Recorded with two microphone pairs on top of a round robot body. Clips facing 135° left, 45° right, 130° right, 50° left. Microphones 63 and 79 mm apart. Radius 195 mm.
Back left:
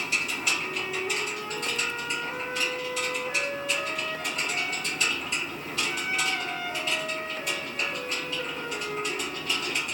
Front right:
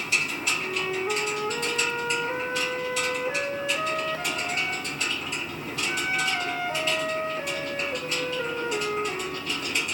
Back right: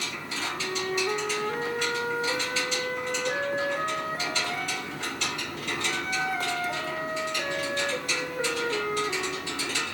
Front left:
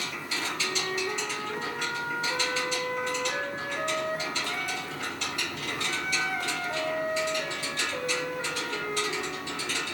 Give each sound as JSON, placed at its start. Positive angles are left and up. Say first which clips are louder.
{"t": 0.6, "sound": "a flute", "louder": "front right 3 dB, back right 4 dB", "azimuth_deg": -95, "distance_m": 2.0}